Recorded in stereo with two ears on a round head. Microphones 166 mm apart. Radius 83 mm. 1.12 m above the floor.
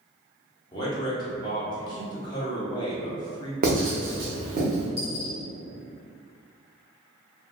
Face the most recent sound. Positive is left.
turn(degrees=-55)  # may be behind; listen again after turning